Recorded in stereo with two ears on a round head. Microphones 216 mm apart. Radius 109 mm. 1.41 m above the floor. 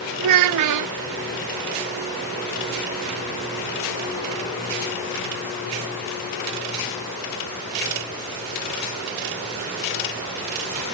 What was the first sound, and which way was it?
A child speaking, 75° right (ahead or behind).